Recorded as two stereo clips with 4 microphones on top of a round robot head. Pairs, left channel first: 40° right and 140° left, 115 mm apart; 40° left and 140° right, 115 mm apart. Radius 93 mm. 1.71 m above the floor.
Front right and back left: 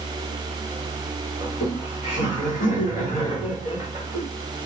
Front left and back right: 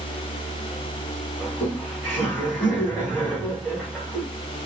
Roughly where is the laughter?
Ahead right.